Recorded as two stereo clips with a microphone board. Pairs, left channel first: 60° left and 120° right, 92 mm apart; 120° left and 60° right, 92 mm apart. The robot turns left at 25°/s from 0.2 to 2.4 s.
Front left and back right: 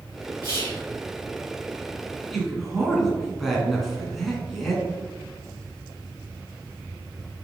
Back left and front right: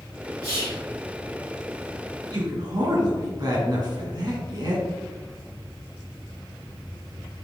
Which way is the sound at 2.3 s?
25° right.